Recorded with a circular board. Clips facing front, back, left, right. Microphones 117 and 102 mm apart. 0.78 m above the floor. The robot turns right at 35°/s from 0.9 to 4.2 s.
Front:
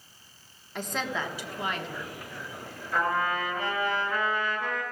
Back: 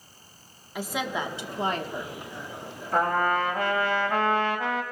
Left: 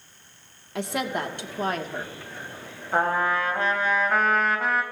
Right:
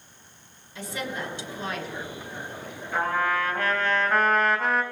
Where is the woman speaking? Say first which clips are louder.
Back 2 dB, left 5 dB; 95° left, 1.4 m; by 2.1 s 140° left, 1.4 m.